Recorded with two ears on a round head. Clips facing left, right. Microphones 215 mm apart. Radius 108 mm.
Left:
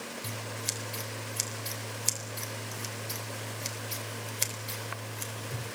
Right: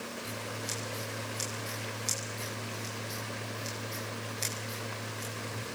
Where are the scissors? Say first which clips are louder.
Right 1 dB; 80° left, 3.5 m.